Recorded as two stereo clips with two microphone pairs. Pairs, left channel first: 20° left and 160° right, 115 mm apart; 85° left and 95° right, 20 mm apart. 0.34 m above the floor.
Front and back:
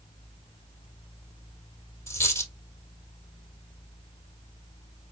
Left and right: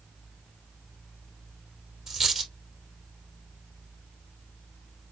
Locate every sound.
2.1 s a dropped coin: 45° right, 2.5 m